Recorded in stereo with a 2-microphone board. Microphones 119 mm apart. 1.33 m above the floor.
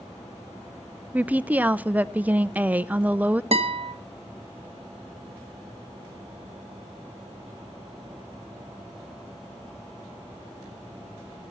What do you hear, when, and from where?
1.1 s a woman speaking: 10° right (ahead or behind), 0.6 m
3.5 s a guitar: 55° right (ahead or behind), 1.6 m